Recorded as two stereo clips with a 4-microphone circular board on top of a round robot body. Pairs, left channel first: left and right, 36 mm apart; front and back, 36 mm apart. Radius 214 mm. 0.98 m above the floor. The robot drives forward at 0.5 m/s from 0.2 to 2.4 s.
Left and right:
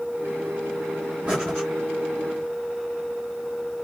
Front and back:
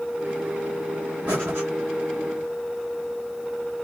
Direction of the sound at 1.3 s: 155° right.